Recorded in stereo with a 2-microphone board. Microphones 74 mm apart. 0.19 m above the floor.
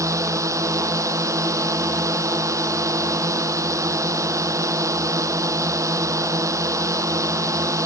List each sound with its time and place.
0.0 s a drone: 45° right (ahead or behind)